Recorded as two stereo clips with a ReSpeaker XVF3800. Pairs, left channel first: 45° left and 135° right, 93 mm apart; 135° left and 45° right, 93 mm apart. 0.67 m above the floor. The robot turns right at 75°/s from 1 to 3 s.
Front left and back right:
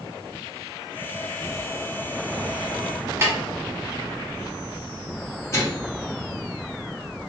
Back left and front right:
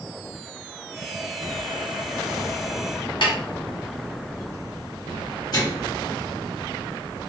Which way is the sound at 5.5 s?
95° left.